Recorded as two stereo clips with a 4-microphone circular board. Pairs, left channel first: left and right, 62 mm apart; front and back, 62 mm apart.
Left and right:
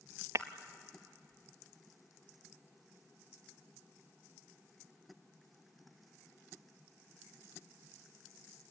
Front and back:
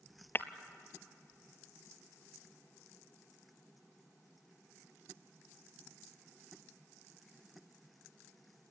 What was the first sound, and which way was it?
Breaking glass, 50° right.